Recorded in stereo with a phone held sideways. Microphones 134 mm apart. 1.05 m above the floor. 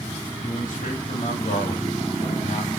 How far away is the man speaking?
About 2.5 m.